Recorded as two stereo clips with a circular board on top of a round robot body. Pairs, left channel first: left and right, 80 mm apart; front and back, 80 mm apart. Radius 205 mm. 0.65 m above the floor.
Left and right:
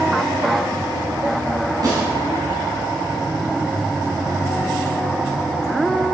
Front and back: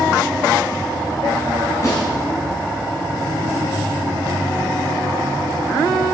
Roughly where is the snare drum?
Ahead right.